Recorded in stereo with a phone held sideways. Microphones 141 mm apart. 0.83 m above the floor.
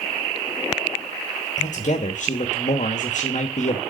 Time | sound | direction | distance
1.6 | a man speaking | 60° left (ahead or behind) | 1.1 m